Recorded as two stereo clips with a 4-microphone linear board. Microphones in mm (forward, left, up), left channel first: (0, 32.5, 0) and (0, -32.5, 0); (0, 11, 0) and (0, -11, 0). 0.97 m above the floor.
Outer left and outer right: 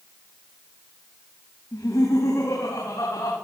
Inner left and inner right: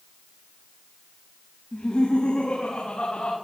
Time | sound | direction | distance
1.7 | laughter | 55° left (ahead or behind) | 5 m